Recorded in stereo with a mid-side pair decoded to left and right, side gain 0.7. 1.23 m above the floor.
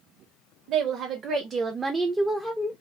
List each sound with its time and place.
0.7 s a woman speaking: 60° right, 1.0 m; by 2.7 s 15° left, 0.8 m